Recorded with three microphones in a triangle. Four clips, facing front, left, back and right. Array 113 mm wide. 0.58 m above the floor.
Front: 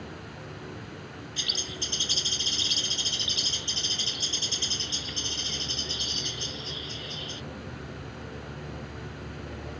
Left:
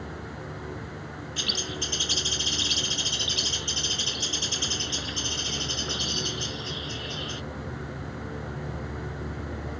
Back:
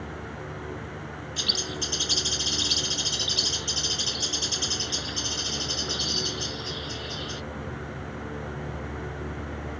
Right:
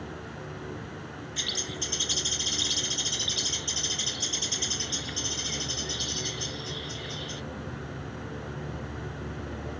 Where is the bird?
135° left.